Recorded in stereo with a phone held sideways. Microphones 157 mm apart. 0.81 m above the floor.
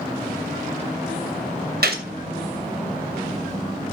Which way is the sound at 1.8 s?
85° right.